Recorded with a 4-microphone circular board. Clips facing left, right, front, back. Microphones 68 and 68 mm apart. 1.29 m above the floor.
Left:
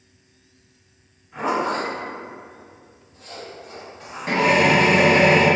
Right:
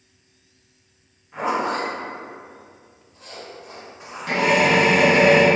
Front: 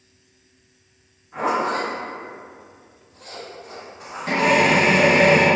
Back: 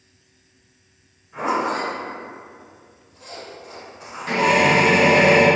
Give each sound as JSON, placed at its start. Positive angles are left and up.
{"t": 1.3, "sound": "a zipper", "azimuth_deg": -15, "distance_m": 1.2}
{"t": 4.3, "sound": "a drill", "azimuth_deg": 35, "distance_m": 0.9}